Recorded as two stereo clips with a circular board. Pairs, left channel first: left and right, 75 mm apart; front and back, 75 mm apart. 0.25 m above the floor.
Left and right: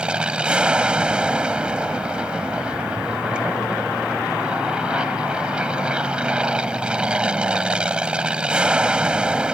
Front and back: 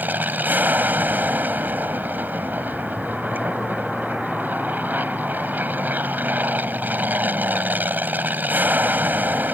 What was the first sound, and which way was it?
An aircraft, 150° right.